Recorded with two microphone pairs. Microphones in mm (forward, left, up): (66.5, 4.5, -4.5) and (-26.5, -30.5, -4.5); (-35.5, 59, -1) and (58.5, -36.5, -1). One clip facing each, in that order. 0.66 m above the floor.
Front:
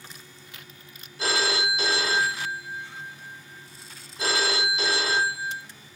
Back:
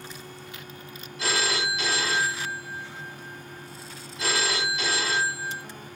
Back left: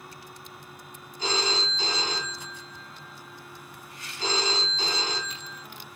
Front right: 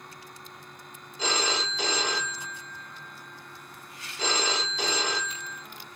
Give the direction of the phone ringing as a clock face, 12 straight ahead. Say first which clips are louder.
Front 2 dB, even; 1 o'clock.